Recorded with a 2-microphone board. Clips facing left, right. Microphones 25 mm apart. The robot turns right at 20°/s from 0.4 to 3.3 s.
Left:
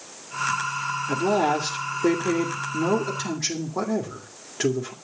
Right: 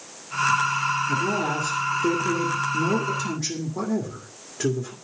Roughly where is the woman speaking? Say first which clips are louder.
Left 2 dB; left.